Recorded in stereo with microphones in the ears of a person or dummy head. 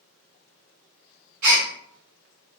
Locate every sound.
1.4 s a gasp: 50° right (ahead or behind), 1.4 m